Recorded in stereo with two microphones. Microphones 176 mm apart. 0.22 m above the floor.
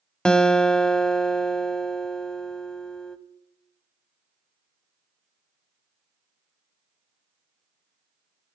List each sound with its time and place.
0.2 s a guitar: 5° left (ahead or behind), 0.6 m